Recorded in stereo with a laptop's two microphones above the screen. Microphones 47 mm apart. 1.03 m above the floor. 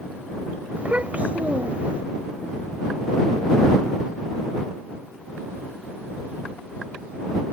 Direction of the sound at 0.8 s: 30° right (ahead or behind).